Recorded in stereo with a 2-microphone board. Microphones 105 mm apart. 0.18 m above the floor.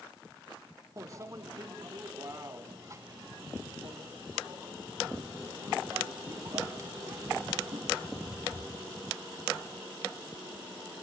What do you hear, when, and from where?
1.0 s a microwave: 35° right (ahead or behind), 1.0 m